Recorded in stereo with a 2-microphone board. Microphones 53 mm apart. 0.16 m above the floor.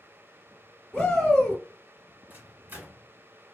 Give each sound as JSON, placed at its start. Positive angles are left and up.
{"t": 0.9, "sound": "a shout", "side_deg": 15, "distance_m": 1.5}
{"t": 2.3, "sound": "a microwave", "side_deg": -35, "distance_m": 1.3}